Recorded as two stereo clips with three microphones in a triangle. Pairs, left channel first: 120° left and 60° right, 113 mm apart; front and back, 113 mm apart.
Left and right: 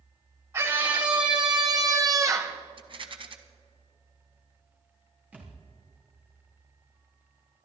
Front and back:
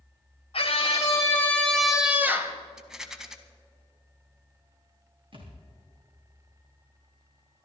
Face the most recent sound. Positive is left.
turn(degrees=-135)